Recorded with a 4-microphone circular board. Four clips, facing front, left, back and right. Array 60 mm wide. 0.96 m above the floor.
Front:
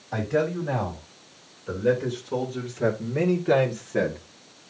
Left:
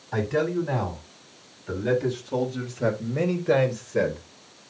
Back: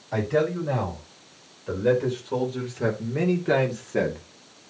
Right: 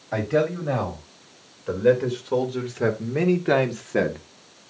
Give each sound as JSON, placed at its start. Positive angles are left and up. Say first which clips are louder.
{"t": 0.1, "sound": "a man speaking", "louder": "right 2 dB, back 1 dB", "azimuth_deg": -100, "distance_m": 4.5}